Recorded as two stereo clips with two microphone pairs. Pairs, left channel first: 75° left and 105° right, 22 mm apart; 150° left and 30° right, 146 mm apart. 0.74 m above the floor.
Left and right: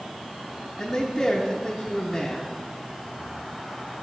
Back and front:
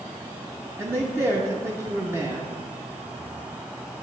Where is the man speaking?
20° left, 0.7 m.